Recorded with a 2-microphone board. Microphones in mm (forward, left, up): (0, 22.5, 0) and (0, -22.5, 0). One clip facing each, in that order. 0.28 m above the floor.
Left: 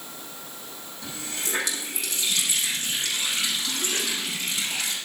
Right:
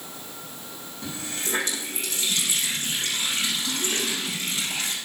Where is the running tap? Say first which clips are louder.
Right 1 dB; 35° right (ahead or behind), 7.5 m.